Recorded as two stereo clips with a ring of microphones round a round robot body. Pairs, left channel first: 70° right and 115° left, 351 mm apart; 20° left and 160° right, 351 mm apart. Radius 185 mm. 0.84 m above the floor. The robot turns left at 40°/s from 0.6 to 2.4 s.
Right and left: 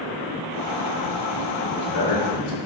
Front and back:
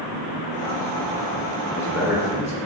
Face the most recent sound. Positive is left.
turn(degrees=-85)